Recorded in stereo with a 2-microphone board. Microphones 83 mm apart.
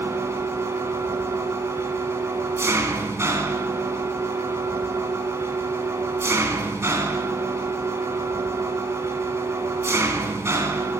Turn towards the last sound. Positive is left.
turn(degrees=-35)  # may be behind; listen again after turning